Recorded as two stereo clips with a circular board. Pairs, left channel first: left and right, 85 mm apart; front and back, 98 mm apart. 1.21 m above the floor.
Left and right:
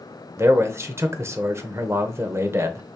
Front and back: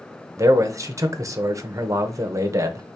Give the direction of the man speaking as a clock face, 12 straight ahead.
5 o'clock.